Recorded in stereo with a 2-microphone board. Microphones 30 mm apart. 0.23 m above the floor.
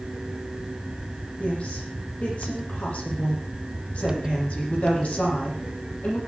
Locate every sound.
1.4 s a woman speaking: 50° left (ahead or behind), 9.5 m